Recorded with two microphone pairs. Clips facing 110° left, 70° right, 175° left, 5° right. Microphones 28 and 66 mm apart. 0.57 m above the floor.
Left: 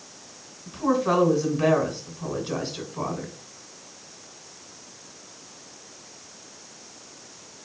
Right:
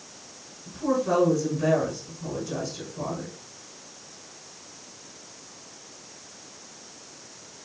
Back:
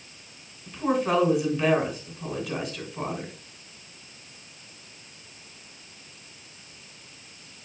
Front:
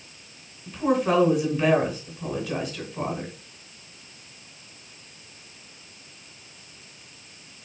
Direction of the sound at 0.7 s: 80° left.